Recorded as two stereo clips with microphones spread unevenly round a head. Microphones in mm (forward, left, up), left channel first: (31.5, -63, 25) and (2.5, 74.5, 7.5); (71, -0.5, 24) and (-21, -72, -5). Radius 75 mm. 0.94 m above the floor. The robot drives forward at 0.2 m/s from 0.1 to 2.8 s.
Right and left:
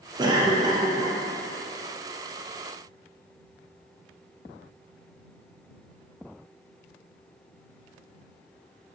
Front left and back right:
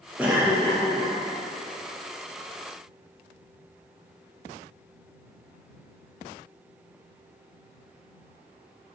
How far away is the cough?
About 0.6 m.